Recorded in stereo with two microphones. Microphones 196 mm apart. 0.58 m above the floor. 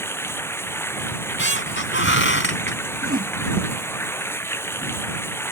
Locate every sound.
0.0 s running water: 10° left (ahead or behind)
1.1 s a squeak: 85° left
3.0 s a whoosh: 50° right (ahead or behind)